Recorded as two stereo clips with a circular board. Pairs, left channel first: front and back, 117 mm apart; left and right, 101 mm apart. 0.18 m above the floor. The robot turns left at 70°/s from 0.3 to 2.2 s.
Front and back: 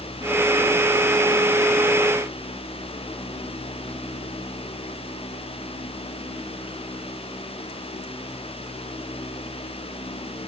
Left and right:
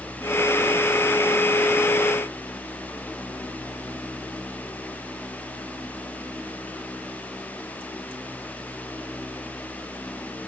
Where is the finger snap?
I don't hear a finger snap.